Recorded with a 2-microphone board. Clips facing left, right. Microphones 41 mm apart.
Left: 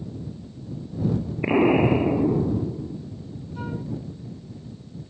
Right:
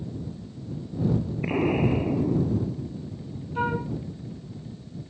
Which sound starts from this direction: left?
An explosion, at 1.4 s.